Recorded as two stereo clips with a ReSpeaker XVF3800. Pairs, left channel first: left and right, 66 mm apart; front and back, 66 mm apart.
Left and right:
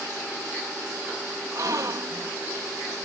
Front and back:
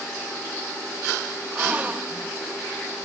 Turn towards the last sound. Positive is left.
turn(degrees=-115)